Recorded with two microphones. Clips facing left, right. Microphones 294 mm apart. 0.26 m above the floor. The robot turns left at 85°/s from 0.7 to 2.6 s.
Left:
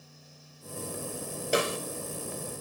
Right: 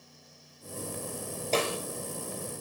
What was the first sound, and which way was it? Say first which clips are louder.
A snare drum: left 1 dB; 15° left (ahead or behind).